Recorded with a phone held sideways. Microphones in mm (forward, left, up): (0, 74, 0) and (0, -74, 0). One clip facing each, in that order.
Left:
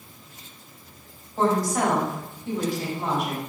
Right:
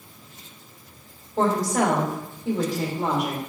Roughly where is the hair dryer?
No hair dryer in this recording.